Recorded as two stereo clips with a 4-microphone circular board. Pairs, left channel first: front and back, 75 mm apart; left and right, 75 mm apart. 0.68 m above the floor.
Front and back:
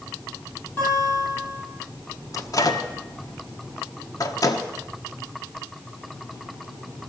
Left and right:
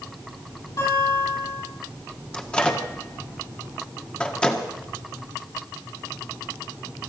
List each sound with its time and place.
0.8 s a guitar: 55° left, 8.5 m
2.3 s a microwave: 15° left, 1.4 m